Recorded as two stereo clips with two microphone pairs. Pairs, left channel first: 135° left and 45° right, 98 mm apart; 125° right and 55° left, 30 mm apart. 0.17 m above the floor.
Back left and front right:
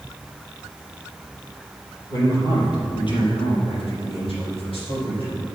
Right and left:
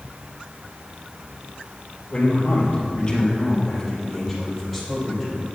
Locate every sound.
2.1 s a man speaking: 170° right, 3 m; by 5.5 s 140° left, 6 m